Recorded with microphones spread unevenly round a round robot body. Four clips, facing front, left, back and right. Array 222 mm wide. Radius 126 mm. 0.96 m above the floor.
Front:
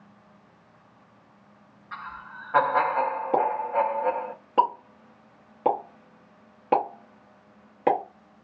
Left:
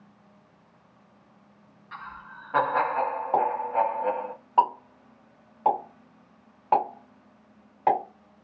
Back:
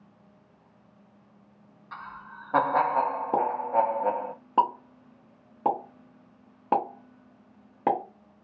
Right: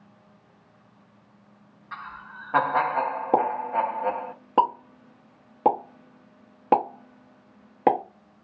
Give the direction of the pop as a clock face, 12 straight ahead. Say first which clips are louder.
Right 1 dB, front 1 dB; 4 o'clock.